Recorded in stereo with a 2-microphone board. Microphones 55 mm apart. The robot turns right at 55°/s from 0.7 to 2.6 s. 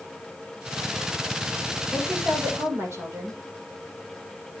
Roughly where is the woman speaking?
Behind right.